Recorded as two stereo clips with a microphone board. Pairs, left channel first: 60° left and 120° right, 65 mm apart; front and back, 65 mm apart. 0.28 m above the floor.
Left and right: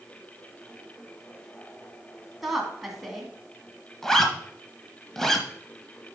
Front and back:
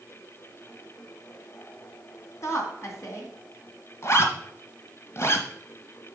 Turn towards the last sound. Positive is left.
turn(degrees=-25)